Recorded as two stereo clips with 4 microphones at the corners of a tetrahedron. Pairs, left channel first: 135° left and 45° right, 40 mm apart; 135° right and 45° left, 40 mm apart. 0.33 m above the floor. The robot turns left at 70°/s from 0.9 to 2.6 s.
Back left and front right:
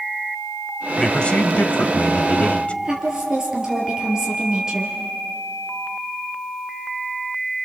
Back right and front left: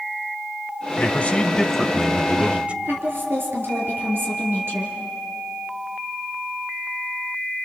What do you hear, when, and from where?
1.0 s a man speaking: 155° right, 1.3 m; by 2.8 s 90° left, 1.3 m
2.9 s a woman speaking: 30° left, 6 m